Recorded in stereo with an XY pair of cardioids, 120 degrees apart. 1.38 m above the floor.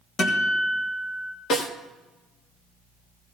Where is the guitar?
50° left, 1.9 m.